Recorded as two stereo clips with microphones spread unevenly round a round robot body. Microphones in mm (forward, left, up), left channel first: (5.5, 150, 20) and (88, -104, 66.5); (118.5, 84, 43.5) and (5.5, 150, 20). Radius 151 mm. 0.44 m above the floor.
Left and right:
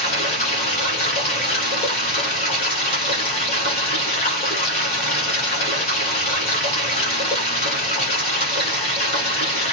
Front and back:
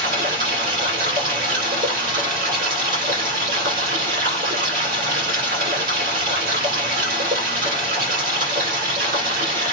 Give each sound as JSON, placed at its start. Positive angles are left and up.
{"t": 0.0, "sound": "running water", "azimuth_deg": 180, "distance_m": 1.2}